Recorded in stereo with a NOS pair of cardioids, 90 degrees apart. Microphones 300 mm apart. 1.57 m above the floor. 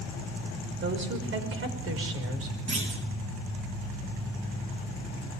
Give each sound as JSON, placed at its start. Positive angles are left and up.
{"t": 0.8, "sound": "a woman speaking", "azimuth_deg": -40, "distance_m": 6.0}
{"t": 2.7, "sound": "a clunk", "azimuth_deg": -40, "distance_m": 7.0}